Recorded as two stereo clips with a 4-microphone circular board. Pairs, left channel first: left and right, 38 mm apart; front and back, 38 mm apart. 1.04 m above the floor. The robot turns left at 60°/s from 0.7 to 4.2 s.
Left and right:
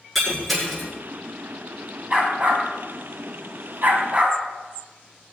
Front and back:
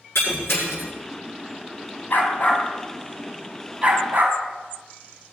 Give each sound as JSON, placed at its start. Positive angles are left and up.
{"t": 0.1, "sound": "breaking glass", "azimuth_deg": 0, "distance_m": 8.0}
{"t": 2.1, "sound": "a dog barking", "azimuth_deg": -20, "distance_m": 2.5}